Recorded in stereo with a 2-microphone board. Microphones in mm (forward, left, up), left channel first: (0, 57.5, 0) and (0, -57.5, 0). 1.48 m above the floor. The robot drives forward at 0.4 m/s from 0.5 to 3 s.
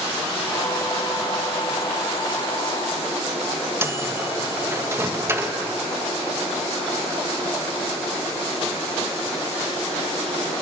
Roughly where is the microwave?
Right.